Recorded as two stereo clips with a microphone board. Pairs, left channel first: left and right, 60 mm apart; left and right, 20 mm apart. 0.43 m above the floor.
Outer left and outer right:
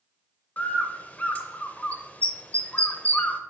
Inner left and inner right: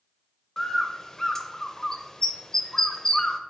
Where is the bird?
25° left (ahead or behind), 0.6 m.